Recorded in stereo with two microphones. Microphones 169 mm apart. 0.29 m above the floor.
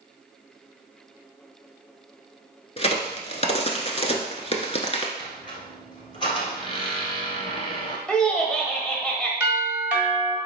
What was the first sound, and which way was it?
A crack, 40° left (ahead or behind).